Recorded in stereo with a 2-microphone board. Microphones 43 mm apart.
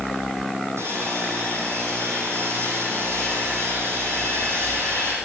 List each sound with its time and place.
0.8 s sawing: 80° right, 4 m